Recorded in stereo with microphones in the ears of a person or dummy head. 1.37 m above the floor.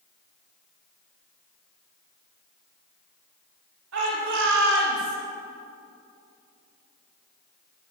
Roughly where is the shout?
Right.